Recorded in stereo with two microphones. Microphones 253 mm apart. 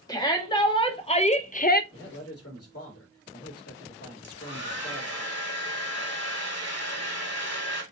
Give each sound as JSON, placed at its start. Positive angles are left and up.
{"t": 0.1, "sound": "a shout", "side_deg": 15, "distance_m": 1.5}
{"t": 1.9, "sound": "a man speaking", "side_deg": 65, "distance_m": 3.0}
{"t": 4.2, "sound": "a hair dryer", "side_deg": 70, "distance_m": 1.0}